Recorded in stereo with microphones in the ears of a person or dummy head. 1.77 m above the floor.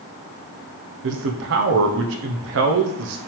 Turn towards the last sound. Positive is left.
turn(degrees=-70)  # may be behind; listen again after turning